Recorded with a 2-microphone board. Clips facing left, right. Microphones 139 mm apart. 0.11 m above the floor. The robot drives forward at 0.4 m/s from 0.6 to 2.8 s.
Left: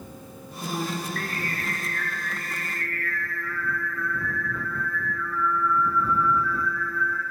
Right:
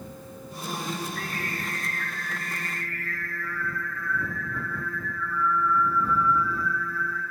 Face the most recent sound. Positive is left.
turn(degrees=85)